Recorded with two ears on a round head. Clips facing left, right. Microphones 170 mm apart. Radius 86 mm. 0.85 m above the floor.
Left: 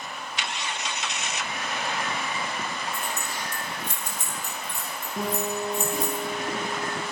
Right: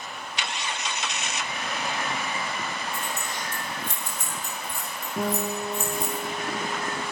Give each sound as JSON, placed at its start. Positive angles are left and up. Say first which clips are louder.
{"t": 2.9, "sound": "keys jangling", "louder": "even", "side_deg": 0, "distance_m": 3.5}
{"t": 5.2, "sound": "a guitar", "louder": "right 1 dB", "side_deg": -5, "distance_m": 2.5}